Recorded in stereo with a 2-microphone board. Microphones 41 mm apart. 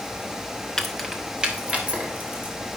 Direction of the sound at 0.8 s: 10° left (ahead or behind).